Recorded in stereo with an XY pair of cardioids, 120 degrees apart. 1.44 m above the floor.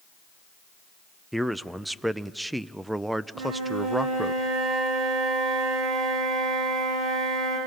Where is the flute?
70° right, 9.5 m.